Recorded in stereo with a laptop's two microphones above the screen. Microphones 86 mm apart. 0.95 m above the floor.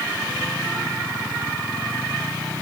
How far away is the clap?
I don't hear a clap.